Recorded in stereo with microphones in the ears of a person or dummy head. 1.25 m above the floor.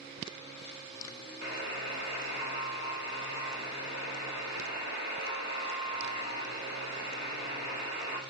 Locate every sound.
1.4 s a buzzer: 50° right (ahead or behind), 1.3 m